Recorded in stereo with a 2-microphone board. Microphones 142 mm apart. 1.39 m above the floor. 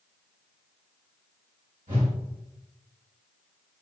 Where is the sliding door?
I don't hear a sliding door.